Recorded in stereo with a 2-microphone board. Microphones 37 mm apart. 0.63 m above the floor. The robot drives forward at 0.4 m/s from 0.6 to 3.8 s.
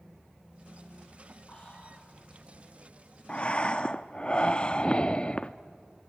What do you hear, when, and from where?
1.5 s whispering: 35° left (ahead or behind), 5 m
3.3 s breathing: 30° left (ahead or behind), 0.6 m